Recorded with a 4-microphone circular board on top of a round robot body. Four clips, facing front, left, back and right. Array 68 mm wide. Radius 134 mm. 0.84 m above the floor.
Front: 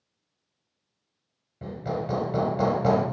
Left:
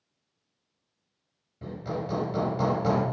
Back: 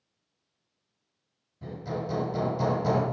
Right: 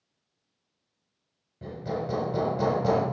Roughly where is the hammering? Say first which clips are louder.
Right 1 dB, front 3 dB; ahead.